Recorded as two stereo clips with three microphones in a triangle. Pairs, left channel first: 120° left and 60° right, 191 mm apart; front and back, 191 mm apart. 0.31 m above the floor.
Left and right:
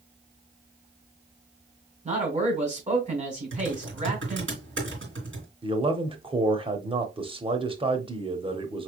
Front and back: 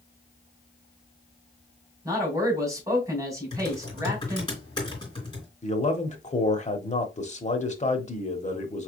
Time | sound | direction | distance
2.0 | a man speaking | 110° right | 2.5 m
3.5 | typing on a keyboard | 70° right | 3.5 m
5.6 | a man speaking | 15° right | 1.0 m